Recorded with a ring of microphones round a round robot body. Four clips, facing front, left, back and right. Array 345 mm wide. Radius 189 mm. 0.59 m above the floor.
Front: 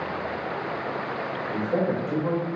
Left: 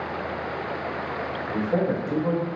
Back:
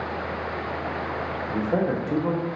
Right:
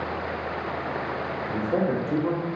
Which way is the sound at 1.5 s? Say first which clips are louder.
Left 1 dB, back 1 dB; 175° right.